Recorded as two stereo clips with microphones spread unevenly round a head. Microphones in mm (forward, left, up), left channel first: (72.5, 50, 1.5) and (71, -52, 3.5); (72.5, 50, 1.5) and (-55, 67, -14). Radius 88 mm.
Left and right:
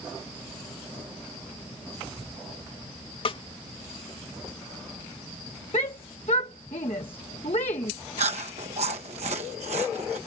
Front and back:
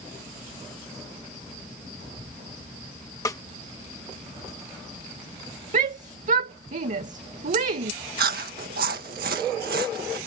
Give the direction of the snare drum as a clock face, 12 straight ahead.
10 o'clock.